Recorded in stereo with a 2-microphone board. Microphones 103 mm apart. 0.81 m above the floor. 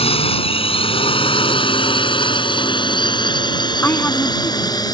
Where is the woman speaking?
20° left (ahead or behind).